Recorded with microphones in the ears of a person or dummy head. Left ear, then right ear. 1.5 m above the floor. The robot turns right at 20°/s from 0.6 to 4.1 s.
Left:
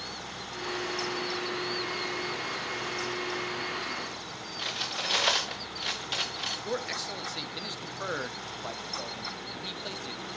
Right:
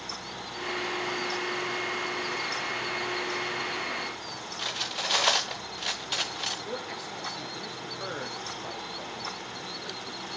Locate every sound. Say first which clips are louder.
4.6 s cutlery clinking: right 1 dB; 5° right (ahead or behind), 0.7 m
6.7 s a man speaking: left 3 dB; 25° left (ahead or behind), 1.3 m